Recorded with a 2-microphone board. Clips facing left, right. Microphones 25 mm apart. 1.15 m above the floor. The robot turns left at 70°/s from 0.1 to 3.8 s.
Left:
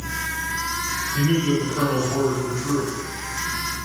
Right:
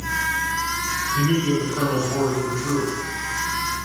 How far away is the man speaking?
About 1.7 m.